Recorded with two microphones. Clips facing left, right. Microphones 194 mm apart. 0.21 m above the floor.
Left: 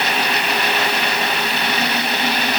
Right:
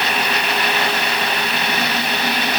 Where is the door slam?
No door slam in this recording.